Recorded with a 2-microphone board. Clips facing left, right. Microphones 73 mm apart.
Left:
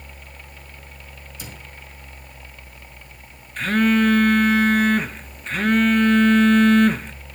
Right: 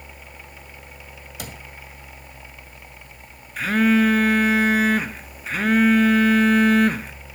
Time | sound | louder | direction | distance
1.4 | a cupboard door | right 3 dB | 60° right (ahead or behind) | 1.7 m
3.6 | a phone buzzing | even | 5° right (ahead or behind) | 0.9 m